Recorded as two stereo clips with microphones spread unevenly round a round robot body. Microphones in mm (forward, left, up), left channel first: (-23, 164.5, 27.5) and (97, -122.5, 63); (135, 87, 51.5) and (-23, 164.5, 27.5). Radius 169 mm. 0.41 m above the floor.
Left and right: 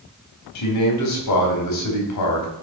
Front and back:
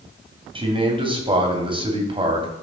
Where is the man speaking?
95° left, 3 m.